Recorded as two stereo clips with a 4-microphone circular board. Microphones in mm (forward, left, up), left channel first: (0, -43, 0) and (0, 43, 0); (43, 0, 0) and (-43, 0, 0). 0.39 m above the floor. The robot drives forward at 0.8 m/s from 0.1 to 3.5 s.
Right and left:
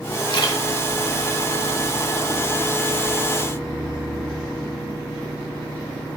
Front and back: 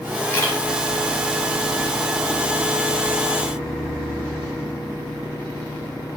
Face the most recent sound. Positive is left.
turn(degrees=-85)